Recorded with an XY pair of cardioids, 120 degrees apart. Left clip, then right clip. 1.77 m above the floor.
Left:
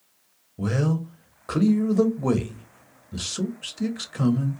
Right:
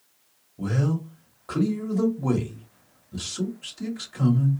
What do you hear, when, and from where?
0.6 s a man speaking: 30° left, 0.8 m